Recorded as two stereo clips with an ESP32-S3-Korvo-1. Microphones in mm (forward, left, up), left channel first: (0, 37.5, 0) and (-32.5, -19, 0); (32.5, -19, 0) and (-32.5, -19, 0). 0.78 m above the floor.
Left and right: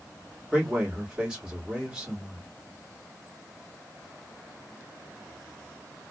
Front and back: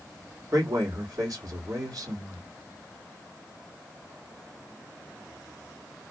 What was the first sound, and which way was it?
A man speaking, 160° left.